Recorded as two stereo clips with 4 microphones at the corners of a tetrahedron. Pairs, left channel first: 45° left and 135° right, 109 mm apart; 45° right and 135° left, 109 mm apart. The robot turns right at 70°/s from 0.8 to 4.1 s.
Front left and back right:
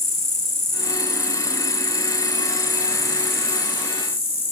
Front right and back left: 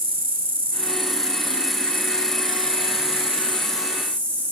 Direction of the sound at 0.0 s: 160° left.